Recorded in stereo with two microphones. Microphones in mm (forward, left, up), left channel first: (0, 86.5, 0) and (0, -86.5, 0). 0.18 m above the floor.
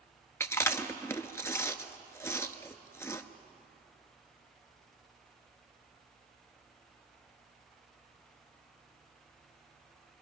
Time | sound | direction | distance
0.4 | chewing | 15° left (ahead or behind) | 0.8 m